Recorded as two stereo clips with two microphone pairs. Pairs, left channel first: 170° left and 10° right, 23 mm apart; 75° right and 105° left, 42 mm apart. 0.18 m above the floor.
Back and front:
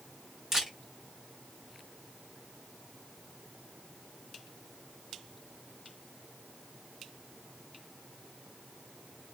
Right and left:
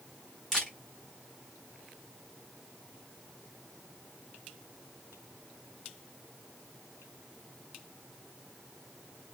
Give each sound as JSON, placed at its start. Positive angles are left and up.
{"t": 0.5, "sound": "a camera shutter", "azimuth_deg": -15, "distance_m": 1.7}